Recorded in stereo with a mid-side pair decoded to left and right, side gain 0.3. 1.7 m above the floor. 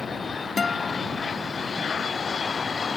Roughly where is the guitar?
Ahead left.